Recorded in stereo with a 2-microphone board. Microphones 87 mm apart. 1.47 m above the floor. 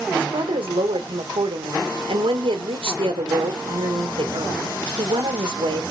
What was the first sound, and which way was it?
A woman speaking, 90° right.